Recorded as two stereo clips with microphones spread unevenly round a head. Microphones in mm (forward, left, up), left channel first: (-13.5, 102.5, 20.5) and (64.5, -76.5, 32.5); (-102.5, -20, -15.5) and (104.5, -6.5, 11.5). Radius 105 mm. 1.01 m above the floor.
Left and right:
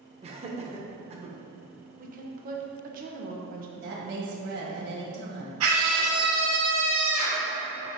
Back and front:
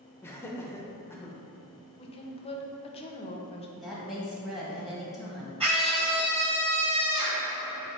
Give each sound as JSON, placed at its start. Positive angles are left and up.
{"t": 0.2, "sound": "laughter", "azimuth_deg": -115, "distance_m": 0.6}
{"t": 2.0, "sound": "a woman speaking", "azimuth_deg": -115, "distance_m": 0.5}
{"t": 3.8, "sound": "a woman speaking", "azimuth_deg": -90, "distance_m": 1.0}
{"t": 5.6, "sound": "a scream", "azimuth_deg": -60, "distance_m": 1.9}